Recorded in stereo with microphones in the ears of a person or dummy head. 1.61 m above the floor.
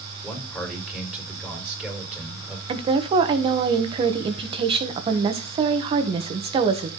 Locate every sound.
0.2 s a man speaking: centre (ahead or behind), 5 m
2.7 s a woman speaking: 35° right (ahead or behind), 1.5 m